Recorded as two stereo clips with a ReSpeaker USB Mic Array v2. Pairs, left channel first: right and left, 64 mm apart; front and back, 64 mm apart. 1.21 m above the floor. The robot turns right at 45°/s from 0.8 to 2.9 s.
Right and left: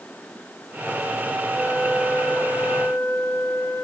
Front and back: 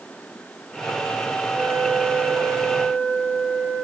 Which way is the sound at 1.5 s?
165° right.